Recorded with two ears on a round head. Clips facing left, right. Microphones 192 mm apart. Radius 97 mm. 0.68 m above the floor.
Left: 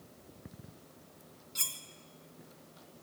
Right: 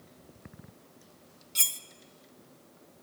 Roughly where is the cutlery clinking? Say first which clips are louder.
Even; right.